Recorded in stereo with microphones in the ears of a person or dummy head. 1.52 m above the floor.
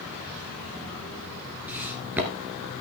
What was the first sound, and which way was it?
Footsteps, 10° right (ahead or behind).